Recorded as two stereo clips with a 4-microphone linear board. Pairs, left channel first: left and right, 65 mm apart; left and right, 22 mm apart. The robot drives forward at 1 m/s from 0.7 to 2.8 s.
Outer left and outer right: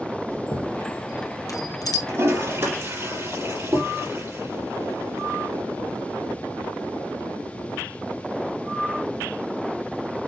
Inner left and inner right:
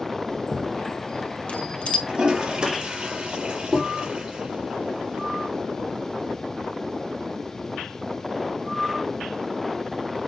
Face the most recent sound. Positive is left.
turn(degrees=-35)  # may be behind; listen again after turning